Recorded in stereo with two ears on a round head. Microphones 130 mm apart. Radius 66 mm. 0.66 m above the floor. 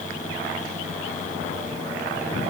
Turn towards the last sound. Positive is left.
No sound to turn to.